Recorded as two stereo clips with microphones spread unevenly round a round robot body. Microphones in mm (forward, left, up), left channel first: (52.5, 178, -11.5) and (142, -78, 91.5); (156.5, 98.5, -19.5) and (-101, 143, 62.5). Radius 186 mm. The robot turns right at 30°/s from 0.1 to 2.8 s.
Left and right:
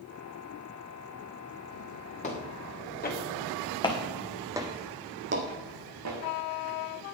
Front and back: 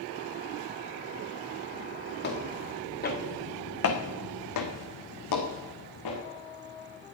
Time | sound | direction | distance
2.2 | footsteps | 40° left | 4 m